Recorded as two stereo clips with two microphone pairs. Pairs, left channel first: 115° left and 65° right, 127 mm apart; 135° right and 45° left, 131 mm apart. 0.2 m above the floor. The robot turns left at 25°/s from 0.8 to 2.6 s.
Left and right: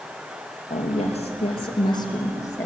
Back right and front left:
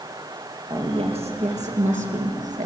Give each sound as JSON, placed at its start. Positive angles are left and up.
{"t": 0.7, "sound": "a woman speaking", "azimuth_deg": 90, "distance_m": 4.0}